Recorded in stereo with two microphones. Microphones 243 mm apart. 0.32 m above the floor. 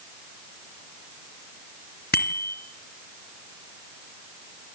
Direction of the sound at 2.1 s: 40° left (ahead or behind).